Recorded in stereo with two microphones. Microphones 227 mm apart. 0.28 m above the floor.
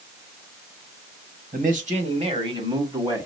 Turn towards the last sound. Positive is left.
turn(degrees=-10)  # may be behind; listen again after turning